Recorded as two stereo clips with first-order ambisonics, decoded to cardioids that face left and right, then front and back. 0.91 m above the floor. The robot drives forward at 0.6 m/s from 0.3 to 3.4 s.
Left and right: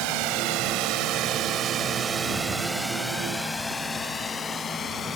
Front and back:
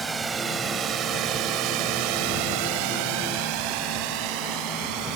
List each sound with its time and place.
0.0 s a drone: 105° right; by 5.2 s 155° left